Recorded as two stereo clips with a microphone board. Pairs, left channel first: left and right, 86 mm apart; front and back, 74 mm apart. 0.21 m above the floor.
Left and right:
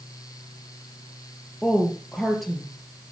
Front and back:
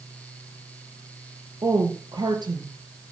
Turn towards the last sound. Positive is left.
turn(degrees=180)